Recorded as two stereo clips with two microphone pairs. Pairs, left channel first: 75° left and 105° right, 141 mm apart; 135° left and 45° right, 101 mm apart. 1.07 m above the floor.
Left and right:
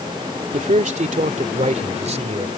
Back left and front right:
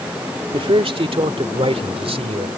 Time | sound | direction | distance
0.5 | a man speaking | 75° right | ?